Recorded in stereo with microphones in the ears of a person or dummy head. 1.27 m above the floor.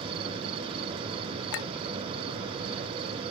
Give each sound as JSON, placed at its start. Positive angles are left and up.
{"t": 0.0, "sound": "an insect", "side_deg": -30}
{"t": 1.5, "sound": "a clink", "side_deg": 70}